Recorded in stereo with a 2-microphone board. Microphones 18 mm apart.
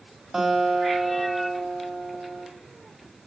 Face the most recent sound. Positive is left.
turn(degrees=-20)  # may be behind; listen again after turning